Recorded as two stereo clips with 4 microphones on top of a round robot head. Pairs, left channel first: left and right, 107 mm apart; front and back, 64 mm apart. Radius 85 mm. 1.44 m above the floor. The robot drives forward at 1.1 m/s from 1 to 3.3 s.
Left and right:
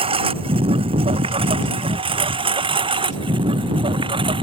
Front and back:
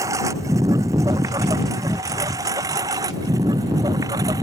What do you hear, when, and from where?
0.0 s a lawn mower: 125° right; by 4.4 s 130° right